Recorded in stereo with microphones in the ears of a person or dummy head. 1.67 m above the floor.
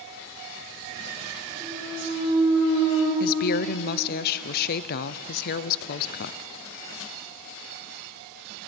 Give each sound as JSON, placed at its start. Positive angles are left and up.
{"t": 1.6, "sound": "a clunk", "side_deg": -10, "distance_m": 9.0}
{"t": 3.2, "sound": "a woman speaking", "side_deg": 50, "distance_m": 0.6}